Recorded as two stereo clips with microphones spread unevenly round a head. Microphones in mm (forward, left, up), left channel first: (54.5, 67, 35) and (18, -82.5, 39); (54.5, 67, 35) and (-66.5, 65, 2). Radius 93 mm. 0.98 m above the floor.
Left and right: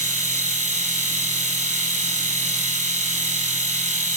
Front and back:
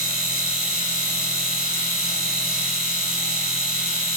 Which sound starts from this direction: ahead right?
A machine running, at 0.0 s.